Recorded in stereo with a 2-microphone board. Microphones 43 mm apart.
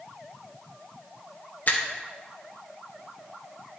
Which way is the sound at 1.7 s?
45° left (ahead or behind).